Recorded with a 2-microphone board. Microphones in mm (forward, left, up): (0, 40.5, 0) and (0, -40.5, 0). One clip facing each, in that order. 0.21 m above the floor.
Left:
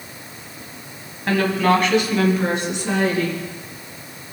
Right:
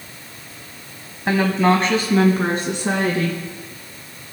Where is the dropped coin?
No dropped coin in this recording.